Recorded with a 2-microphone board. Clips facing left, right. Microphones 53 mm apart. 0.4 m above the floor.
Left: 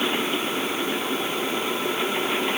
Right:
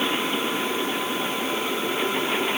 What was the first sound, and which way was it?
Only background noise.